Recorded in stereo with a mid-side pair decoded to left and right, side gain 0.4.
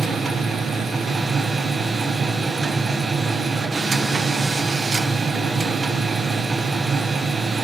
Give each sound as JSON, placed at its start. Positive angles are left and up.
{"t": 0.0, "sound": "a machine running", "azimuth_deg": -45, "distance_m": 1.2}